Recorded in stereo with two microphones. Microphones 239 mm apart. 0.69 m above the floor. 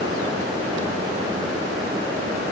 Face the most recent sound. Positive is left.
No sound to turn to.